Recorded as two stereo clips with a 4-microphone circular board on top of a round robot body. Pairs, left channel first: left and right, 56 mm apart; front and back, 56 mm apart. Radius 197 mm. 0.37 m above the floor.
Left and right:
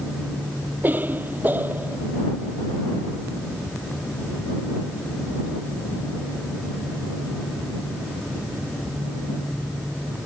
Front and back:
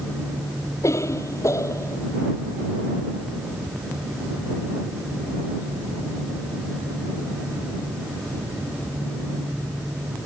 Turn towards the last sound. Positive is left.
turn(degrees=-30)